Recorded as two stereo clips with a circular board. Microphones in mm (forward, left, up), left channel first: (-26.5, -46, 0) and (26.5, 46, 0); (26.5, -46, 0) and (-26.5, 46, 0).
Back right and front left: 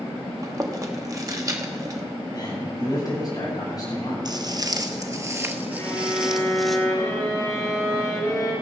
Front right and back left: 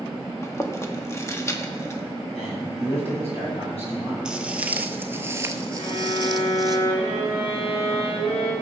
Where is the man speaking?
70° right, 7 m.